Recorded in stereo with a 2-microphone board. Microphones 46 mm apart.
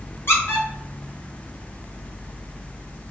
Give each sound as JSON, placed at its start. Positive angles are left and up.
{"t": 0.3, "sound": "a squeak", "side_deg": 60, "distance_m": 1.1}